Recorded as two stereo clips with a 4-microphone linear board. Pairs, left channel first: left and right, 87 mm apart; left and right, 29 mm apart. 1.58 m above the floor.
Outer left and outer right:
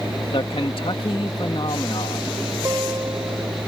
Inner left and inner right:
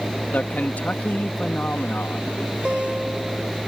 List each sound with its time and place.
0.3 s a man speaking: 80° left
2.6 s a guitar: 30° right (ahead or behind)